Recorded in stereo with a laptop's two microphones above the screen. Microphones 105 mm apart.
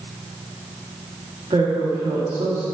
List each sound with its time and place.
1.5 s a woman speaking: 55° right (ahead or behind), 1.5 m